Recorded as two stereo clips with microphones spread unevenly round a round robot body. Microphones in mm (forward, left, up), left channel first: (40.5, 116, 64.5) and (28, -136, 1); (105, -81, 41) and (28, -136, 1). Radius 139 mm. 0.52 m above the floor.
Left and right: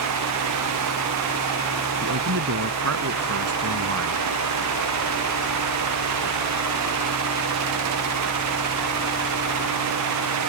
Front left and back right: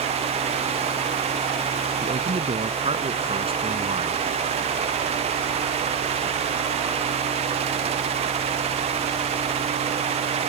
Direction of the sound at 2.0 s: 135° right.